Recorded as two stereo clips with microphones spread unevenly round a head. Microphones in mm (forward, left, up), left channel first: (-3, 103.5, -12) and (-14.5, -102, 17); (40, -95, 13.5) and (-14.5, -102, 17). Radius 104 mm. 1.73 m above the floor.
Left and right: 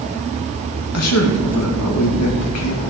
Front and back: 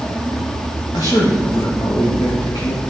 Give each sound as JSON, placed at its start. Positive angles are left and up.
{"t": 0.9, "sound": "a man speaking", "azimuth_deg": 70, "distance_m": 2.0}